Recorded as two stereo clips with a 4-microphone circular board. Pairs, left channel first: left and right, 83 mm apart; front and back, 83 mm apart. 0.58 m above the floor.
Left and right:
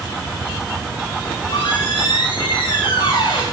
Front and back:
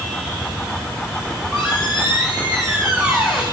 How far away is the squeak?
About 5.5 m.